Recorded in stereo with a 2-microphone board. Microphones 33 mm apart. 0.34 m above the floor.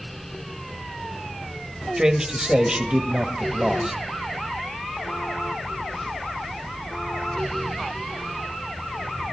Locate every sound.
2.0 s a man speaking: 25° right (ahead or behind), 1.1 m